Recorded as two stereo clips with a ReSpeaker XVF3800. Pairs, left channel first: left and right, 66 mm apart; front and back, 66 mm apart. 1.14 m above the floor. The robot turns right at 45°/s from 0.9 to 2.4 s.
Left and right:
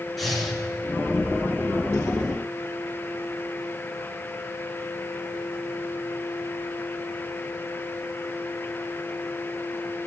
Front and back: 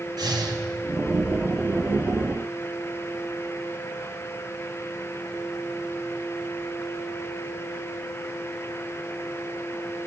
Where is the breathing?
Straight behind, 1.4 m.